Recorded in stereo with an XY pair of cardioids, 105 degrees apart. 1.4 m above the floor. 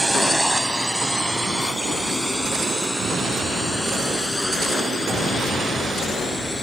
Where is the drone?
10° right; by 6.6 s 10° left.